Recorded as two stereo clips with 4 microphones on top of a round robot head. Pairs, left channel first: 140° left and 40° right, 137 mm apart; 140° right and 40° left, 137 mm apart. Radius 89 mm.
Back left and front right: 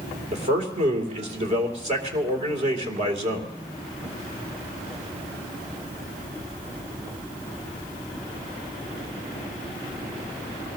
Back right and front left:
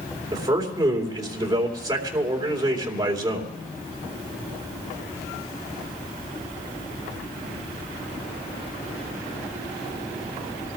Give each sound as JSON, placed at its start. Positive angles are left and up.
{"t": 0.3, "sound": "a man speaking", "azimuth_deg": -20, "distance_m": 2.5}